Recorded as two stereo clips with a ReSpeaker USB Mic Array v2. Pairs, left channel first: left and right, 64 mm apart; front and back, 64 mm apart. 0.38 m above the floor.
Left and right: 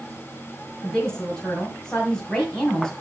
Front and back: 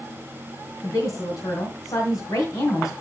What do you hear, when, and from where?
0.8 s a woman speaking: 10° left, 2 m